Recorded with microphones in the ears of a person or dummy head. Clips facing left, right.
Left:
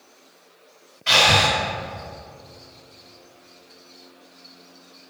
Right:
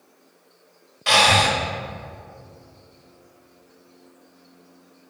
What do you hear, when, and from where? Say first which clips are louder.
1.1 s breathing: right 1 dB; 65° right (ahead or behind), 1.6 m